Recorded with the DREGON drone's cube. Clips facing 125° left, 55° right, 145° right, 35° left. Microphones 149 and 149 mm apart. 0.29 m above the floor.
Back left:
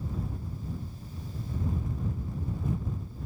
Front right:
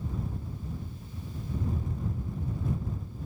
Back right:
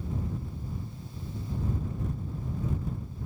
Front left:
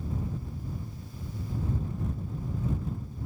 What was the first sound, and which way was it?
Only background noise.